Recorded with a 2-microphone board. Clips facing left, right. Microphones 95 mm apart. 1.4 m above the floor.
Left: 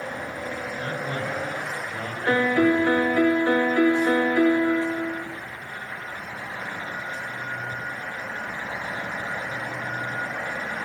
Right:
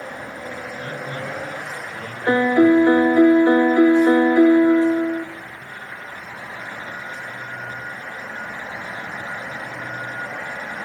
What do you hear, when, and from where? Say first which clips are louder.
0.8 s a man speaking: left 1 dB; 30° left (ahead or behind), 9 m; by 3.3 s 25° left (ahead or behind), 9 m
2.3 s a piano: right 6 dB; 20° right (ahead or behind), 0.5 m